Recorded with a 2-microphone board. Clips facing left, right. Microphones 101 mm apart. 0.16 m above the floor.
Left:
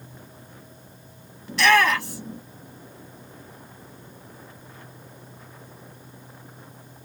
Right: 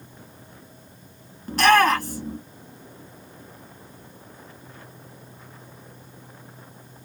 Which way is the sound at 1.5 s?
45° right (ahead or behind).